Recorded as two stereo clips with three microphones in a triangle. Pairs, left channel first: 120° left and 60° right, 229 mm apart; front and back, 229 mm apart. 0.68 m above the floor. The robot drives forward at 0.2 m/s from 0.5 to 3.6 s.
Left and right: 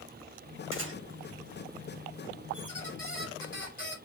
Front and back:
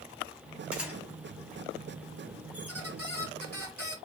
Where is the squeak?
160° left, 1.3 m; by 4.0 s 165° left, 1.5 m.